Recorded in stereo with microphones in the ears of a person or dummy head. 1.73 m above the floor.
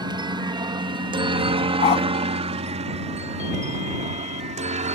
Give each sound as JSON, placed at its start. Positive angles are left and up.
{"t": 0.0, "sound": "a helicopter", "side_deg": -20}
{"t": 1.8, "sound": "a dog barking", "side_deg": 40}